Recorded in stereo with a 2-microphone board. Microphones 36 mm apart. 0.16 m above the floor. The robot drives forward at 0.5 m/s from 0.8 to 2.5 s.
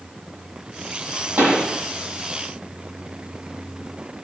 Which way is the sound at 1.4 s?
75° right (ahead or behind).